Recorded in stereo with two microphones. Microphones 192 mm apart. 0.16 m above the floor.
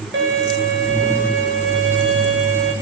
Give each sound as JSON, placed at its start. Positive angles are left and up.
{"t": 0.1, "sound": "a violin", "side_deg": -80, "distance_m": 8.5}